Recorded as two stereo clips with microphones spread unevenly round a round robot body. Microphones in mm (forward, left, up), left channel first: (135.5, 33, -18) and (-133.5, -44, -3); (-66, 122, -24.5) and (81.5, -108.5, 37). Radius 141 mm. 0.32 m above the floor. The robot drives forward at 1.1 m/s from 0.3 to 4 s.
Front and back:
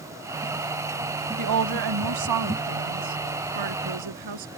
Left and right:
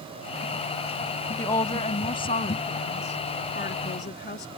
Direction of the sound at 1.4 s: 165° right.